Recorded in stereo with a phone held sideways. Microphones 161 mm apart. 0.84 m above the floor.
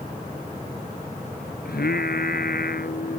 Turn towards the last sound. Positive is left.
turn(degrees=75)  # may be behind; listen again after turning